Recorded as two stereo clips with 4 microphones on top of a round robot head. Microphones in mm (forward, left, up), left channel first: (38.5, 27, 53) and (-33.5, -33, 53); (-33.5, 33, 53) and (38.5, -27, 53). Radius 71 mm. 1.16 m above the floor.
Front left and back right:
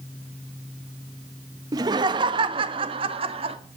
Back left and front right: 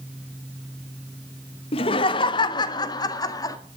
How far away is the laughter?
About 1.0 m.